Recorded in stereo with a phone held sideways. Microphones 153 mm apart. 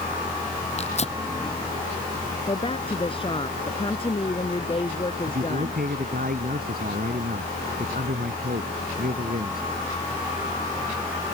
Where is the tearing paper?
45° left (ahead or behind).